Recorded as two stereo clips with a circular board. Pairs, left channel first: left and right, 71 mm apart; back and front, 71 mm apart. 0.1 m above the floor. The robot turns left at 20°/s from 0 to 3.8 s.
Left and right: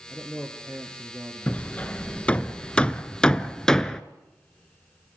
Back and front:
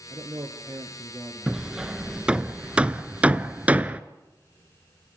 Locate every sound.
0.1 s a man speaking: straight ahead, 2.5 m; by 2.5 s 50° right, 2.5 m
1.5 s hammering: 65° left, 0.7 m; by 4.0 s 20° left, 0.7 m